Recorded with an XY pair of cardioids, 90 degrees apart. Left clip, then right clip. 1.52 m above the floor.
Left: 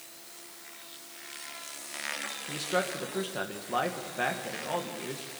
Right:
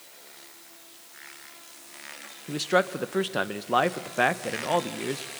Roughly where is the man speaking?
Ahead right.